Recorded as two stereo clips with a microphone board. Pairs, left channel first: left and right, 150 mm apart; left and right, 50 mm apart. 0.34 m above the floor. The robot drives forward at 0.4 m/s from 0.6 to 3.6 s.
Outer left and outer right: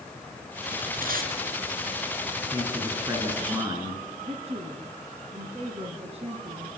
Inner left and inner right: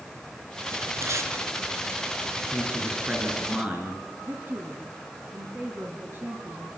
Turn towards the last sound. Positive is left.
turn(degrees=-40)  # may be behind; listen again after turning